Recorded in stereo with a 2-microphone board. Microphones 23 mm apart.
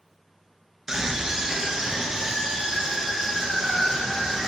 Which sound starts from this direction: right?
A scream, at 0.9 s.